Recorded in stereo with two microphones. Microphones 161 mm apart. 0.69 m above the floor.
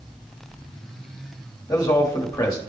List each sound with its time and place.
1.7 s a man speaking: 20° left (ahead or behind), 1.2 m